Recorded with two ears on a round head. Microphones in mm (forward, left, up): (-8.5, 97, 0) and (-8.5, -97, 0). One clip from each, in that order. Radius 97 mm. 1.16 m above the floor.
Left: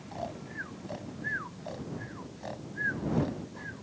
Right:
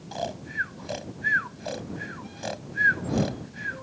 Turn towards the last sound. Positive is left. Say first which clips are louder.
# right 8 dB
turn(degrees=-85)